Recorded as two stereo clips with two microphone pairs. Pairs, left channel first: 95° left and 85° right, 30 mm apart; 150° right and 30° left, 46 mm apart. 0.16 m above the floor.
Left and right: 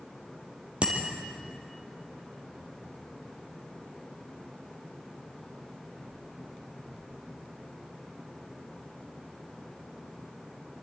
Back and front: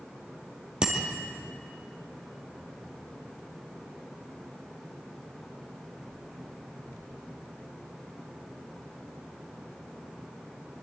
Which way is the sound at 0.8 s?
35° right.